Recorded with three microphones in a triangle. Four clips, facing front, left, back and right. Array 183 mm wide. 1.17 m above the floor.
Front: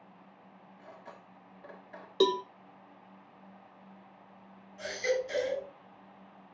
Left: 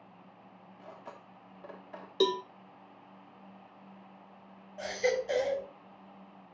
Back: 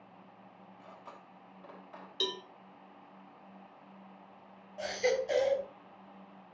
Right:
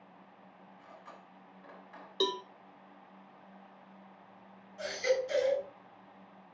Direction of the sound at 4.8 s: 135° left.